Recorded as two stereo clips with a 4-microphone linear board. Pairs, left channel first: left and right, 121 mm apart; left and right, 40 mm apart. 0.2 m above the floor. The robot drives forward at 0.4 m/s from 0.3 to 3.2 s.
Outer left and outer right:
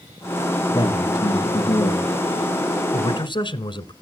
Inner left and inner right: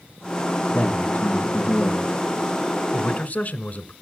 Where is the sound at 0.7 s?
35° left (ahead or behind), 3.5 m; by 2.1 s 30° left (ahead or behind), 4 m.